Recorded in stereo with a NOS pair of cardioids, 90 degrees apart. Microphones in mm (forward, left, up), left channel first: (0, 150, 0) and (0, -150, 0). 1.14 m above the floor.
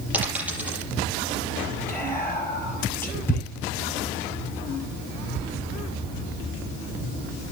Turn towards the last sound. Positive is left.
turn(degrees=10)